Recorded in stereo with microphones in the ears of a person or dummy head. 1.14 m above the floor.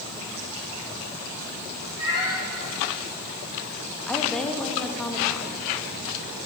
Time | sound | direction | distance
2.0 | a cat meowing | 20° right (ahead or behind) | 6 m
4.1 | a woman speaking | centre (ahead or behind) | 1.3 m